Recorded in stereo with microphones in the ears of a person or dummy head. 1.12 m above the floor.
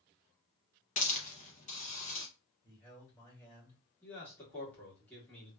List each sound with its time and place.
1.0 s a hiss: 40° left (ahead or behind), 0.6 m
2.6 s a man speaking: 10° left (ahead or behind), 1.9 m
4.0 s a man speaking: 10° left (ahead or behind), 1.7 m